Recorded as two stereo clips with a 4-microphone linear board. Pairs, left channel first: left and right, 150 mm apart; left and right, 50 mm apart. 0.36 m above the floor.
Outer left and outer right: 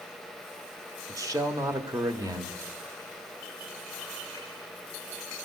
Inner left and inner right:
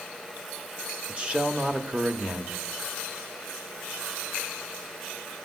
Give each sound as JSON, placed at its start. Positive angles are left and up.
{"t": 1.1, "sound": "a man speaking", "side_deg": -25, "distance_m": 0.8}